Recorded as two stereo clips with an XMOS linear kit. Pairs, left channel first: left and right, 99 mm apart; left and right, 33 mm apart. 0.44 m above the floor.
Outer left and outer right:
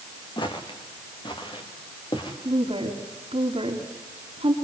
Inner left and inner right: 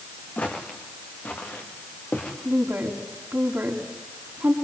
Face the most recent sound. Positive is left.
turn(degrees=-65)  # may be behind; listen again after turning